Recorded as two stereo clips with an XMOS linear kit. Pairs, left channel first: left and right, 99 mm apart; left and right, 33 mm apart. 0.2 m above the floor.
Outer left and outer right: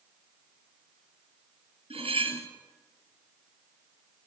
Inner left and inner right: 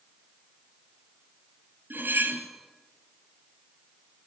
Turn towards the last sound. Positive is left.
turn(degrees=-75)  # may be behind; listen again after turning